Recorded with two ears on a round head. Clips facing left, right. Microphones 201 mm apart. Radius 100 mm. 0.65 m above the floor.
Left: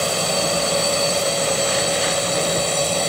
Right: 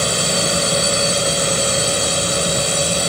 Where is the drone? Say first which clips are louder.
Right 1 dB; 20° right (ahead or behind); by 3.1 s 15° right (ahead or behind).